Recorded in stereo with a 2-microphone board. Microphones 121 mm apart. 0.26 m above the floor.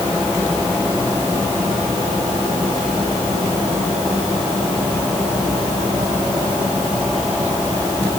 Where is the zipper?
No zipper in this recording.